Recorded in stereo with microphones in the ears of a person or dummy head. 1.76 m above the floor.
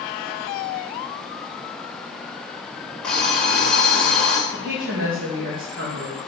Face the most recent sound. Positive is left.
turn(degrees=-60)  # may be behind; listen again after turning